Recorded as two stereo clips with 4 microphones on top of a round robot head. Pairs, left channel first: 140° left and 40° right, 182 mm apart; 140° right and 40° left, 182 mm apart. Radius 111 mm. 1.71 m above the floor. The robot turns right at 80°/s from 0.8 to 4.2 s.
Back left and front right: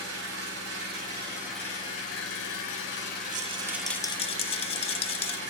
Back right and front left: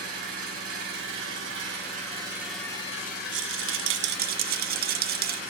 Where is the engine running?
10° right, 4.5 m; by 5.5 s 95° right, 4.5 m.